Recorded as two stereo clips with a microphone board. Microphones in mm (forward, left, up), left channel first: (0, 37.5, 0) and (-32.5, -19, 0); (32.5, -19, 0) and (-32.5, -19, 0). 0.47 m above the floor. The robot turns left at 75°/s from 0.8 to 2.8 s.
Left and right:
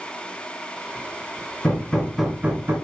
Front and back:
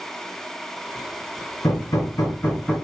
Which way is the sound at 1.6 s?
10° left.